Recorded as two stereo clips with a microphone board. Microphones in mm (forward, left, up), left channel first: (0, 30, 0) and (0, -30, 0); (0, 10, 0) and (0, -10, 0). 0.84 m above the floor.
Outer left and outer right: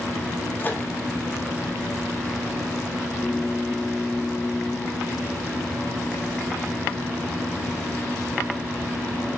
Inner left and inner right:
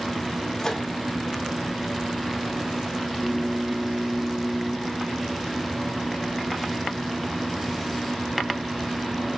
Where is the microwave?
30° left (ahead or behind), 0.5 m.